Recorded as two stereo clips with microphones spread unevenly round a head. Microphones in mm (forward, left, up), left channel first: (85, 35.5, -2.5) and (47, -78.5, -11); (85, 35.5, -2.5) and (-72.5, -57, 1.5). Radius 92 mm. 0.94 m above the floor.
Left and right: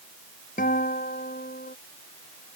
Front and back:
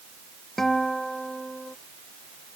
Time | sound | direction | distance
0.6 | a guitar | 120° left | ?